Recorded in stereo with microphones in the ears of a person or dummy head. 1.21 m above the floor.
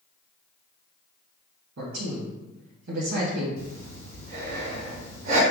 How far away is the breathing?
About 2 m.